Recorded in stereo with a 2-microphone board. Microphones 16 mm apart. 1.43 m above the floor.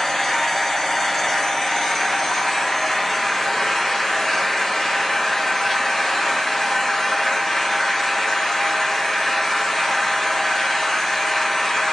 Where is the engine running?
25° left (ahead or behind), 0.8 m.